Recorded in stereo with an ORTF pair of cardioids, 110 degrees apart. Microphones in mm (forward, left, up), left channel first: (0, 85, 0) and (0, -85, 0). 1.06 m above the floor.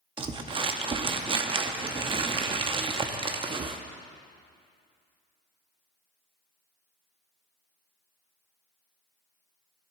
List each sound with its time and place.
0.2 s crumpling: 30° right, 0.9 m